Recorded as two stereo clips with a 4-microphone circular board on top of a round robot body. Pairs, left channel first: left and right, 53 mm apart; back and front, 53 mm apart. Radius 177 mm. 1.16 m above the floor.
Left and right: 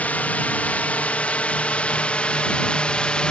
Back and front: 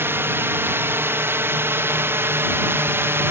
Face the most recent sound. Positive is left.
turn(degrees=25)